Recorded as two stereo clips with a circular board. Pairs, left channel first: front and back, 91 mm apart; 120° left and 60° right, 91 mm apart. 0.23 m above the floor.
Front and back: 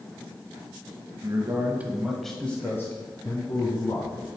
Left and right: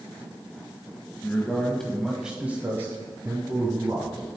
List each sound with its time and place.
1.2 s a man speaking: 175° left, 1.1 m; by 4.3 s 15° right, 1.7 m